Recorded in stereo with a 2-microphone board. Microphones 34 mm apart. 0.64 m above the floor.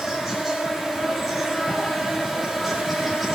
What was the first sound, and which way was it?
An insect, 5° right (ahead or behind).